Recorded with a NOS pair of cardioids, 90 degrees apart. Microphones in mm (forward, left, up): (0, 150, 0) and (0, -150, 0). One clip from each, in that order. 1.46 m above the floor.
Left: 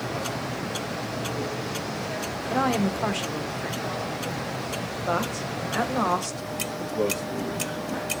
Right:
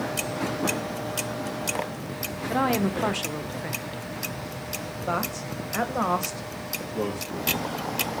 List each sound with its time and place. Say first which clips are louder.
2.5 s a woman speaking: even; 5° right, 1.2 m
5.1 s a man speaking: left 1 dB; 5° left, 1.7 m
6.9 s a man speaking: left 5 dB; 10° left, 3.5 m